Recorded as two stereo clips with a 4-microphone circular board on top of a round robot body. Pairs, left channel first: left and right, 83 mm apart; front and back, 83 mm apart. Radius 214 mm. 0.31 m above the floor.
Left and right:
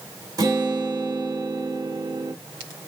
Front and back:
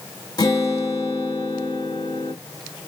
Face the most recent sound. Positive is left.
turn(degrees=-45)